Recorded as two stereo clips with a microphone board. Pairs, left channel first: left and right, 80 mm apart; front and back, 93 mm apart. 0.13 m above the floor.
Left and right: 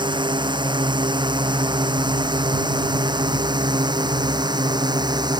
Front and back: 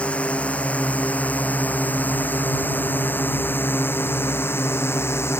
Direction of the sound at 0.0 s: 75° right.